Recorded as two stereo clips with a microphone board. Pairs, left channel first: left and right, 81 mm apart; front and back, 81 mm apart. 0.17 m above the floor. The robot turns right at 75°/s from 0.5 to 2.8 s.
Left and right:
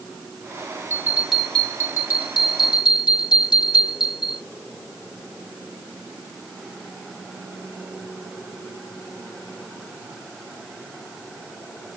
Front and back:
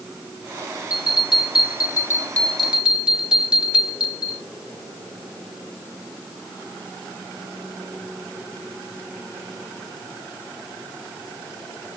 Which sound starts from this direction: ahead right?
A bell, at 0.9 s.